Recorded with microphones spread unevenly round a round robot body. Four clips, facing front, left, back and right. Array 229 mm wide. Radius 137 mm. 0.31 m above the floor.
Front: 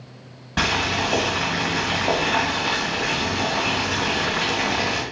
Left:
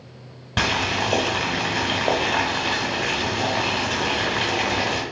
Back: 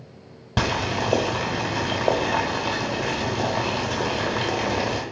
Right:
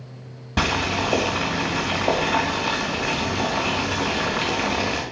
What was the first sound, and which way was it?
Boiling, 175° left.